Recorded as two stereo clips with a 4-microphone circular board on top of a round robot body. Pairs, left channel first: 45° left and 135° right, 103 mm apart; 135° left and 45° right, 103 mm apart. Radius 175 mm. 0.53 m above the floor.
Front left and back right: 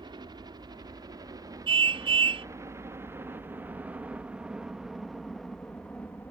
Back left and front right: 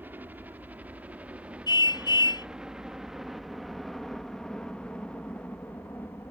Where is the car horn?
175° right.